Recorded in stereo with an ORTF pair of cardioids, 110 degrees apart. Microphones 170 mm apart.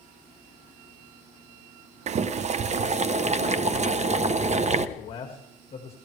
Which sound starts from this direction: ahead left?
A man speaking, at 5.0 s.